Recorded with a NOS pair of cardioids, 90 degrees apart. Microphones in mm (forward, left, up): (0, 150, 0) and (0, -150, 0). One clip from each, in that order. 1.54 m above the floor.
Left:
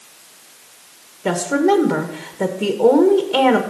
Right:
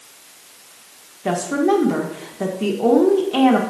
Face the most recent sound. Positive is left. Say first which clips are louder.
# left 2 dB
turn(degrees=15)